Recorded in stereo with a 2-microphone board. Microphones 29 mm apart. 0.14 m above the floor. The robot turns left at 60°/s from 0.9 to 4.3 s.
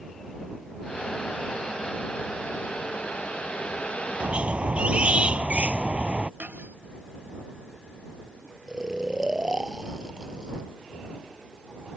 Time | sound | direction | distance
4.2 | a squeak | 50° right (ahead or behind) | ?
6.4 | cutlery clinking | 70° right (ahead or behind) | ?
8.7 | snoring | 25° right (ahead or behind) | ?